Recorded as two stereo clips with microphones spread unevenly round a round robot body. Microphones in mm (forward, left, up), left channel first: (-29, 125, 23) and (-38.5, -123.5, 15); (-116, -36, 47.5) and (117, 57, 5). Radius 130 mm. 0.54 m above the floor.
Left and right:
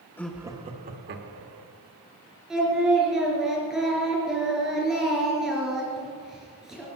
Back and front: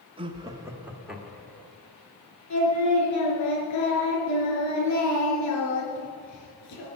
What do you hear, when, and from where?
0.2 s laughter: 10° left, 1.1 m; by 1.7 s 65° right, 2 m
2.5 s singing: straight behind, 4 m